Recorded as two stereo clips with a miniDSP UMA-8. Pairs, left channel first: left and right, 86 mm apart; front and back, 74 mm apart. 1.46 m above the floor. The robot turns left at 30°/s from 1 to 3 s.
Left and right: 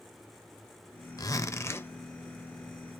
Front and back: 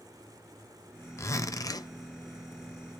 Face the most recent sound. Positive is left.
turn(degrees=-5)